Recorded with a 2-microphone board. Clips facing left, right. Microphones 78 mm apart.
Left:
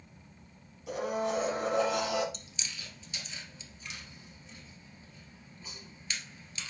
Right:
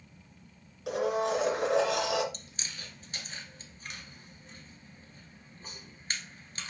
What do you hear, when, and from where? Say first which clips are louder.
0.9 s a blender: right 3 dB; 80° right, 3 m
2.3 s chewing: even; 45° right (ahead or behind), 1.6 m